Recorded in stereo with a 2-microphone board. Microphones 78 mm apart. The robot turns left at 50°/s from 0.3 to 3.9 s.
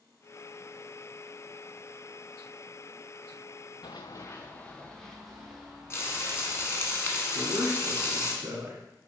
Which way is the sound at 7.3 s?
30° right (ahead or behind).